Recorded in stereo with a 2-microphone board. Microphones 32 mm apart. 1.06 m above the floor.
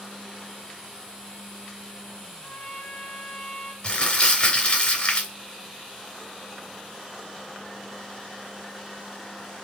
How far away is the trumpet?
About 2.5 m.